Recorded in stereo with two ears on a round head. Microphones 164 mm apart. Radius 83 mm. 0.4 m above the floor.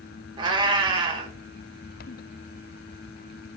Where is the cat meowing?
25° right (ahead or behind), 0.8 m.